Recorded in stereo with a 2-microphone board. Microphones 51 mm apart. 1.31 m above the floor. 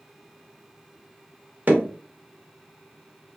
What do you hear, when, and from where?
1.7 s hammering: 35° right (ahead or behind), 1.2 m